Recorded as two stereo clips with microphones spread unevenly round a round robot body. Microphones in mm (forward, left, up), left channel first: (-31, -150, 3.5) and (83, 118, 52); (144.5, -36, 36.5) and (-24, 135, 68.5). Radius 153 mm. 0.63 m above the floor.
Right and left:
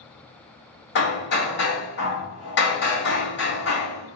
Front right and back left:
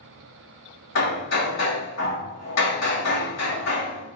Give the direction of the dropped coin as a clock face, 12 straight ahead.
I don't hear a dropped coin.